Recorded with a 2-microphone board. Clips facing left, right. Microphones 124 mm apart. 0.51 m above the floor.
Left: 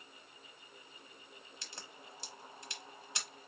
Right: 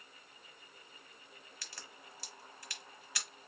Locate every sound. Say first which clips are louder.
1.6 s a crack: left 1 dB; 25° left (ahead or behind), 1.2 m